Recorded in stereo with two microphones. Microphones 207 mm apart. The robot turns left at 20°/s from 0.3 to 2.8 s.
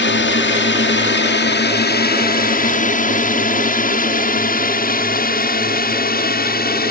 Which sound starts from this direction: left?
A drone, at 0.0 s.